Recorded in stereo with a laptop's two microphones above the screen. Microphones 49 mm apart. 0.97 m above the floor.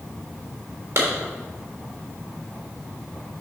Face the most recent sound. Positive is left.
turn(degrees=-70)  # may be behind; listen again after turning